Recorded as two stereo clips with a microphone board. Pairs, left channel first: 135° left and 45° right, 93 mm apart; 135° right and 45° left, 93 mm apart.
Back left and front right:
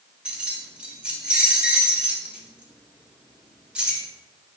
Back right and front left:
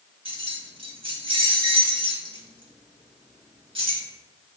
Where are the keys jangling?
35° left, 1.8 m.